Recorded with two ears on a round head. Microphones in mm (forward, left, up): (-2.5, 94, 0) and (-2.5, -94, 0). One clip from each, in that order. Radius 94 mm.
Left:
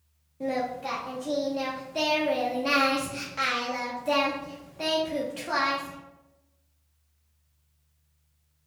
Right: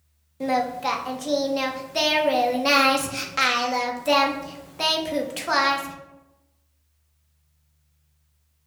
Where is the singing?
40° right (ahead or behind), 0.8 m.